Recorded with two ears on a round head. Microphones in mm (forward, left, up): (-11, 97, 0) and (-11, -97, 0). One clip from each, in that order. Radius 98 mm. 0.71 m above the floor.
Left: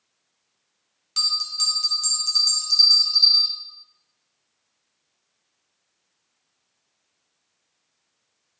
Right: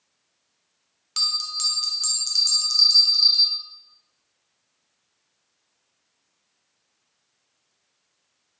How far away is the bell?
About 0.8 m.